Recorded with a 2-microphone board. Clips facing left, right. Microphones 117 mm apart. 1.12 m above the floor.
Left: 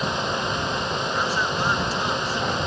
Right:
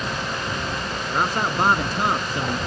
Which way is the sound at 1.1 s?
55° right (ahead or behind).